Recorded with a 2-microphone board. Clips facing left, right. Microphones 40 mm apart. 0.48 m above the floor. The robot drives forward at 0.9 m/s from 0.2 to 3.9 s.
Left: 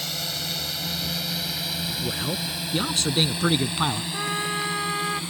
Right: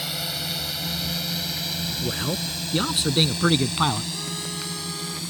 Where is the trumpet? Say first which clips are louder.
Left 6 dB; 90° left.